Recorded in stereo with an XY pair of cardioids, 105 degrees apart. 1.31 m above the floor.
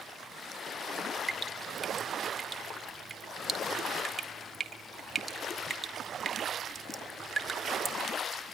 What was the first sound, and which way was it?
Dripping, 25° right.